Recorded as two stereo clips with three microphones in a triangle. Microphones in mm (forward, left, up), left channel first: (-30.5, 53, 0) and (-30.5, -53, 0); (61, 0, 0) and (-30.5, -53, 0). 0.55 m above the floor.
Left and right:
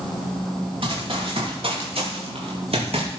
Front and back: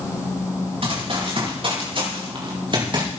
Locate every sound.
0.8 s running footsteps: 120° right, 6 m; by 3.2 s 105° right, 5.5 m